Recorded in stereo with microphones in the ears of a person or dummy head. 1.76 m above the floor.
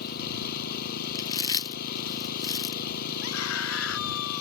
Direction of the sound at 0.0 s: 50° left (ahead or behind).